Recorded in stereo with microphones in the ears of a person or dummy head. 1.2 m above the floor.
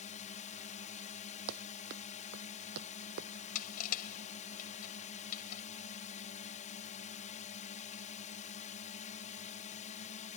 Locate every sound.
0.0 s a drone: 35° left (ahead or behind)
1.5 s running footsteps: 50° right (ahead or behind)
3.5 s crushing: 50° left (ahead or behind)